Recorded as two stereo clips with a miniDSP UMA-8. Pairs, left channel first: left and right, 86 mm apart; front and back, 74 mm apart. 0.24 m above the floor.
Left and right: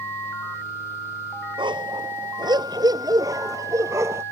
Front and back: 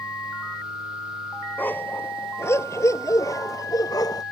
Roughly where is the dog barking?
Ahead right.